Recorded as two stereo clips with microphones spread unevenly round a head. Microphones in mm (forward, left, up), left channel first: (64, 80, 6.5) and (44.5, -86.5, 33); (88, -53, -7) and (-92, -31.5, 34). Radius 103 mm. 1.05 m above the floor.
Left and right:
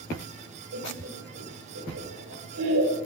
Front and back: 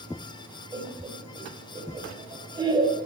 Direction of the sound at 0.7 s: 120° right.